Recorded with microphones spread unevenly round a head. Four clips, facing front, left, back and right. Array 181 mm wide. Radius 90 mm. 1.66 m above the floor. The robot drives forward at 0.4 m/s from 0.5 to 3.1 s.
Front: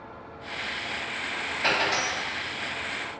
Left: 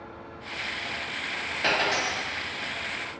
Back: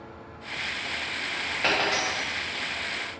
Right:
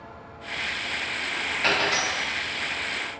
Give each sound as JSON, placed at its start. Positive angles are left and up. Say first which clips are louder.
{"t": 1.6, "sound": "a dropped coin", "louder": "right 1 dB, even", "azimuth_deg": 155, "distance_m": 1.1}